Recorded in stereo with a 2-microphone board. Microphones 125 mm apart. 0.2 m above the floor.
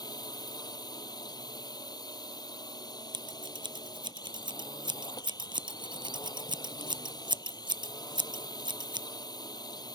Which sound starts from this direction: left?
A drone, at 0.0 s.